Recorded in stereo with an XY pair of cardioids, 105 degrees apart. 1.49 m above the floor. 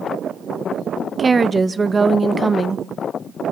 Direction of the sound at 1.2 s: 25° right.